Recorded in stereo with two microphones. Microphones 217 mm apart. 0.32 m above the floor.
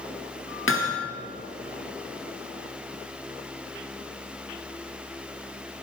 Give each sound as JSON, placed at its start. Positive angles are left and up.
{"t": 0.7, "sound": "hammering", "side_deg": 80, "distance_m": 3.0}